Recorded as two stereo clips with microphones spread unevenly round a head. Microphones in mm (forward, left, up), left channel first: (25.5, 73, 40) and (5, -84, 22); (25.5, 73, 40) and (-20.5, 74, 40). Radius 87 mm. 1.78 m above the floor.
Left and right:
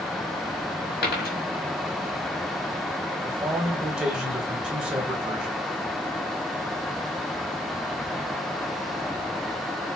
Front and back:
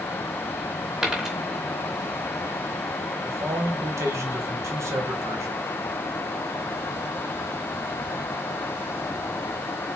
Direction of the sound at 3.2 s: 175° left.